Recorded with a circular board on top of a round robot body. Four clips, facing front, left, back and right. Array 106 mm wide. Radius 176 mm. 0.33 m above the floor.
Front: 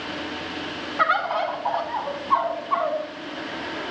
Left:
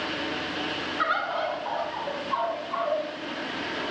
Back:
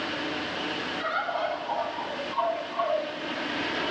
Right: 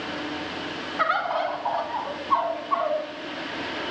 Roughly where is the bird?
Ahead right.